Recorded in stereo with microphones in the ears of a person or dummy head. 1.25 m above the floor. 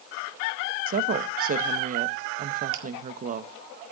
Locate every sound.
0.9 s a woman speaking: 45° right (ahead or behind), 1.0 m
2.7 s a finger snap: 80° right, 2 m